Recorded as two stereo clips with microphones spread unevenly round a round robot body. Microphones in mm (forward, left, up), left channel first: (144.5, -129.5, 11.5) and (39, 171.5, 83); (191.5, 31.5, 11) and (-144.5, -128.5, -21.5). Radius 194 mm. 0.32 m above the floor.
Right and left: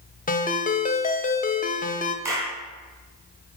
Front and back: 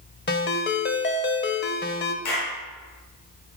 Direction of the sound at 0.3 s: 30° right.